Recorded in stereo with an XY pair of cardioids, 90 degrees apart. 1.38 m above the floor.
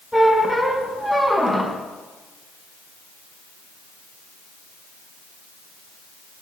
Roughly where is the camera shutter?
I don't hear a camera shutter.